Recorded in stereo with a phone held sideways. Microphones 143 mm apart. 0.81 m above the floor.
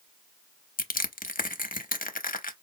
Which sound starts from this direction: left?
Crushing, at 0.8 s.